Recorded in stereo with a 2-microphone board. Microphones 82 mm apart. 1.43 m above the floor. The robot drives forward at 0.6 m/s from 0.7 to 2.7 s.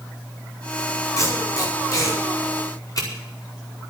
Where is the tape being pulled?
40° left (ahead or behind), 5.5 m; by 3.1 s 50° left (ahead or behind), 5 m.